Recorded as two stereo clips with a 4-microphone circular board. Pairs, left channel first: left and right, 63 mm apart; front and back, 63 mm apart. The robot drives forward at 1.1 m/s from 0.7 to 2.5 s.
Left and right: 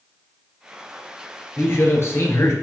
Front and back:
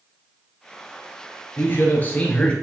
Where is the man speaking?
45° left, 3 m; by 2.5 s 70° left, 2.5 m.